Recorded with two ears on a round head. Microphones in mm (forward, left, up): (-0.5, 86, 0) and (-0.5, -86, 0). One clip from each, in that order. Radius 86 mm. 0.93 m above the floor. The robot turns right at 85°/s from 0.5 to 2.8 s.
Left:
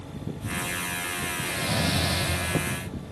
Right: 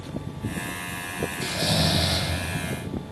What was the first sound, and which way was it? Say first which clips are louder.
Snoring: right 5 dB; 95° right.